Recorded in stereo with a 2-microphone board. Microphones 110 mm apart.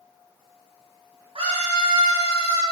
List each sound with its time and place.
1.4 s a scream: 60° right (ahead or behind), 2.0 m; by 2.6 s 65° right (ahead or behind), 2.5 m